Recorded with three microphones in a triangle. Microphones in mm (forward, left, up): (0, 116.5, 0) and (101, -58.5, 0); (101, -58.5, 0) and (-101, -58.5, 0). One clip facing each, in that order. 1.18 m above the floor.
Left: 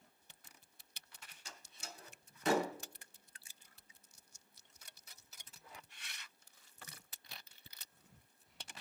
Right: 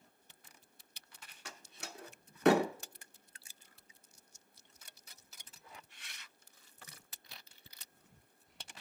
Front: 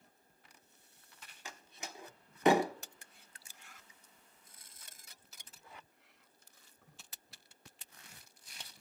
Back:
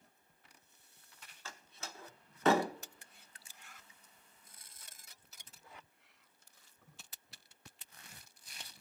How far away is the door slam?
About 0.7 m.